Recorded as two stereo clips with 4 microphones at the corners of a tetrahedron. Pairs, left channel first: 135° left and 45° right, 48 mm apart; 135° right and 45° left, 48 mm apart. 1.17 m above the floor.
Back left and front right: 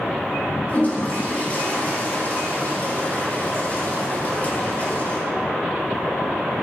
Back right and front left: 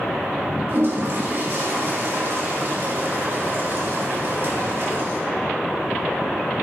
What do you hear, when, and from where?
0.7 s a toilet flushing: 80° left, 2.5 m